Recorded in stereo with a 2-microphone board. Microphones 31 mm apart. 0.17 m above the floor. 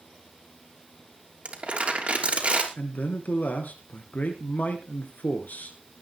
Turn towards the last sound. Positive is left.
turn(degrees=60)  # may be behind; listen again after turning